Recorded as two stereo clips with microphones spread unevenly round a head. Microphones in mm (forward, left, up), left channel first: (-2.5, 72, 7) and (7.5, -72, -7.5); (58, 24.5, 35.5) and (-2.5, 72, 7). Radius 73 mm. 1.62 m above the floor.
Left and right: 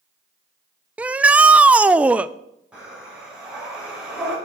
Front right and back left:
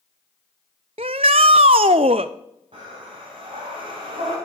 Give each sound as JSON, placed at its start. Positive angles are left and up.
{"t": 1.0, "sound": "a shout", "azimuth_deg": -170, "distance_m": 0.5}
{"t": 2.7, "sound": "breathing", "azimuth_deg": -170, "distance_m": 5.0}